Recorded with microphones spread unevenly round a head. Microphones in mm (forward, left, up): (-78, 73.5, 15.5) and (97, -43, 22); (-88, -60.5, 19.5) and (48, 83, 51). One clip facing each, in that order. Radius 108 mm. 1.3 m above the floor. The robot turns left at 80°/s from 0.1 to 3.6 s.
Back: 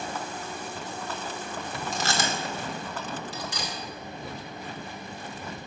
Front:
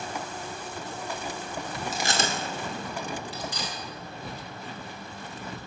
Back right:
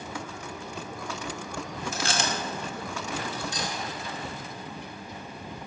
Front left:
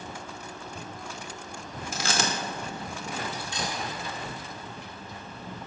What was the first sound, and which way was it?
Chewing, 50° left.